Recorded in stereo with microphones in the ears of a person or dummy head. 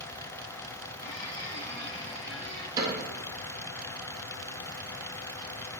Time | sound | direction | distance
1.0 | a squeak | 45° left (ahead or behind) | 2 m
2.8 | a cupboard door | 15° right (ahead or behind) | 2.5 m